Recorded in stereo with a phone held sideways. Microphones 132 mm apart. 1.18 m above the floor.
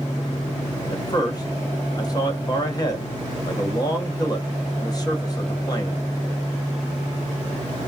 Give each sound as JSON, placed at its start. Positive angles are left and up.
{"t": 0.9, "sound": "a man speaking", "side_deg": 30, "distance_m": 1.0}